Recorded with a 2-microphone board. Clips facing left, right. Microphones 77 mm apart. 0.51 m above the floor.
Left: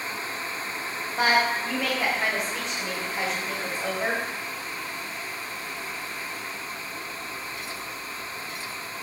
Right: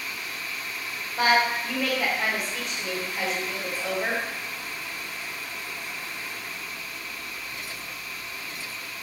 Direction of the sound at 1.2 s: 5° right (ahead or behind).